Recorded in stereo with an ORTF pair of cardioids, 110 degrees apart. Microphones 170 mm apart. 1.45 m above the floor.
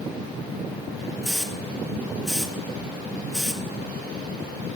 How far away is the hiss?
About 1.2 m.